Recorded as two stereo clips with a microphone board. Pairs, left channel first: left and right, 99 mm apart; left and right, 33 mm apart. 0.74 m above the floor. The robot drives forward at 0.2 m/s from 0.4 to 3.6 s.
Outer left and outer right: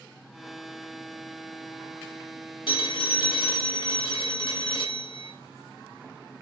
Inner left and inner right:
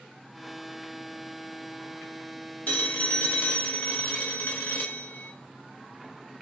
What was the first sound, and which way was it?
A phone ringing, 60° left (ahead or behind).